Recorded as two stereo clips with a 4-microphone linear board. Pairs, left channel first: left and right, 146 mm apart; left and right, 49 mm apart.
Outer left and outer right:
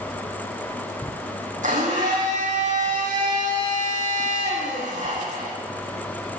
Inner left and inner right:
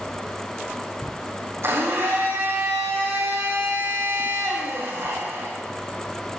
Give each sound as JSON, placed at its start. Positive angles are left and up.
{"t": 1.6, "sound": "a blender", "side_deg": -60, "distance_m": 3.0}